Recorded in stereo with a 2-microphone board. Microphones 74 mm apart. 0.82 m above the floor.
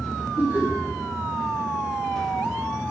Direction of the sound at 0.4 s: 55° right (ahead or behind).